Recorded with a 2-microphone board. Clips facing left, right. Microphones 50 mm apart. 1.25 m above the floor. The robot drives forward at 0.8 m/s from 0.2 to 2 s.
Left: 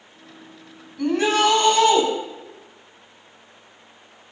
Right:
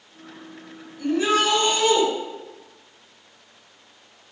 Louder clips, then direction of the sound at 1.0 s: Left 2 dB; 60° left (ahead or behind).